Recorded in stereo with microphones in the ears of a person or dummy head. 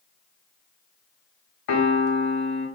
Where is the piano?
60° left (ahead or behind), 1.2 m.